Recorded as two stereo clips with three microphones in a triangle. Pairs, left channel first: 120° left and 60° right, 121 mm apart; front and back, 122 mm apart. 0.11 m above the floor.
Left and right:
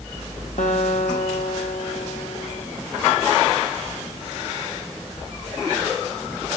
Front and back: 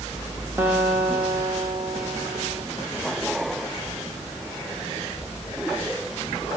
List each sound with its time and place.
0.6 s a guitar: 110° left, 6 m